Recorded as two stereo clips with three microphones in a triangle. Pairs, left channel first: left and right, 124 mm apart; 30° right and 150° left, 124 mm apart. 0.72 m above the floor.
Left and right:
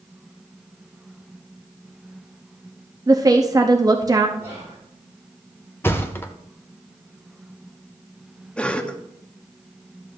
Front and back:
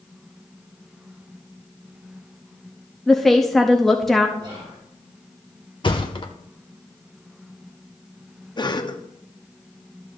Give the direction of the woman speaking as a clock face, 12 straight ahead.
4 o'clock.